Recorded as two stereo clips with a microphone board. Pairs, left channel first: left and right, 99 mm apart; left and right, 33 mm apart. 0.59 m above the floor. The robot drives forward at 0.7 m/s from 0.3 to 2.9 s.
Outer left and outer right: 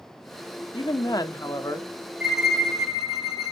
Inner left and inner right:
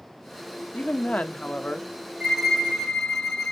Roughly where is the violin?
Centre.